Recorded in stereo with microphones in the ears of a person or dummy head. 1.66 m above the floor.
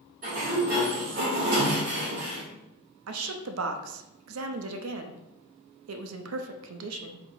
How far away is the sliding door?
About 1.7 m.